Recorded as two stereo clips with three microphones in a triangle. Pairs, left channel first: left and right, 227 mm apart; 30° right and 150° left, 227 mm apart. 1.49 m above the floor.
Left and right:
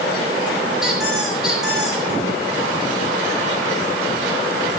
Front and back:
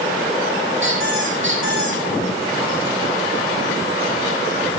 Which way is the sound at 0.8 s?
Straight behind.